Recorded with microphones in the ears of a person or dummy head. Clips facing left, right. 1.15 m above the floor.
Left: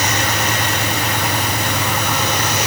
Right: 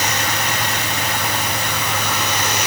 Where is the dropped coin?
No dropped coin in this recording.